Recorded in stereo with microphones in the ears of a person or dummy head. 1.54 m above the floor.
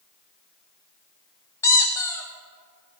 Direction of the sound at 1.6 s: 10° left (ahead or behind).